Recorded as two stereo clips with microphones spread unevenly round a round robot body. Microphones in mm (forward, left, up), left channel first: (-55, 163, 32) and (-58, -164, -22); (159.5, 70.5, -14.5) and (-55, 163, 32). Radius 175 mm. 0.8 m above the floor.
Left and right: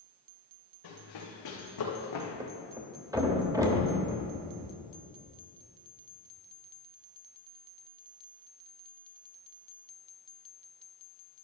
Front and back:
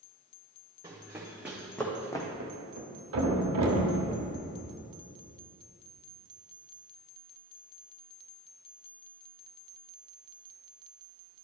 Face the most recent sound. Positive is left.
turn(degrees=-175)